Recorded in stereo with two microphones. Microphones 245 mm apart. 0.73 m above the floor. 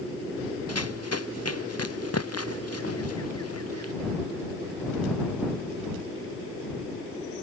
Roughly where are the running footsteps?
Left.